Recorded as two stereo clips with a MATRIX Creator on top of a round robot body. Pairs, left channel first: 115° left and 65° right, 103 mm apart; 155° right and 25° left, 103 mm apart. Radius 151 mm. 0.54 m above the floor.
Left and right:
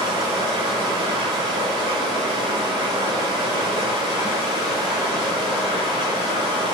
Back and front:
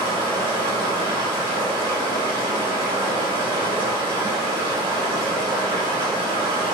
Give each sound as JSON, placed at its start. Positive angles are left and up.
{"t": 0.0, "sound": "running water", "azimuth_deg": -20, "distance_m": 1.0}